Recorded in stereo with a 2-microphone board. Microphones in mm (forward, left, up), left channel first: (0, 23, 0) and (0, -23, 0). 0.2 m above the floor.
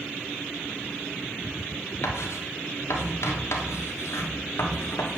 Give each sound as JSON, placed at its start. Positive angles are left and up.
{"t": 2.0, "sound": "writing", "side_deg": 70, "distance_m": 1.4}